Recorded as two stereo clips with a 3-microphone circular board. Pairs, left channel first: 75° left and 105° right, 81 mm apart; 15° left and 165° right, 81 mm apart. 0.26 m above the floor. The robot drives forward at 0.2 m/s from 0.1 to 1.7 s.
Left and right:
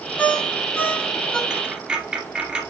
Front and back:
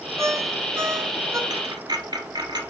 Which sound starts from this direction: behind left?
A ringtone, at 0.2 s.